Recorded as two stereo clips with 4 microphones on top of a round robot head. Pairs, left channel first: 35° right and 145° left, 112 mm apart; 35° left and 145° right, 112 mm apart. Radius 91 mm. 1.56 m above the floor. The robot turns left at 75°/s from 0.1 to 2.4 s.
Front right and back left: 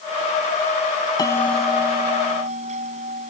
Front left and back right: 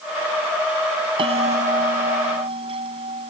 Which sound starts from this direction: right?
A bell, at 1.2 s.